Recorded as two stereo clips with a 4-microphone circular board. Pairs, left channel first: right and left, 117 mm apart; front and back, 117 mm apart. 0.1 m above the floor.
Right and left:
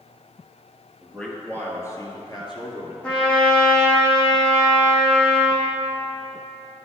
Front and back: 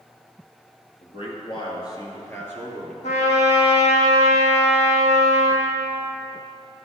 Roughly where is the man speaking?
Ahead.